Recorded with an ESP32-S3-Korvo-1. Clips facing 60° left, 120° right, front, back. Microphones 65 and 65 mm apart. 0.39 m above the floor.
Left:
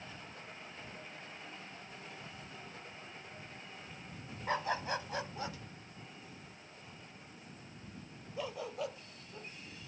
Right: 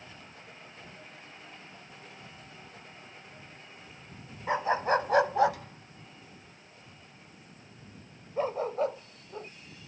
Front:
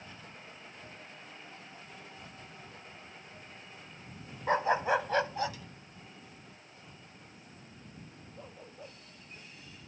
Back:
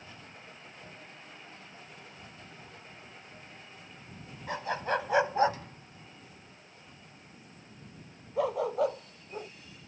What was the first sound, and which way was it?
A dog barking, 50° right.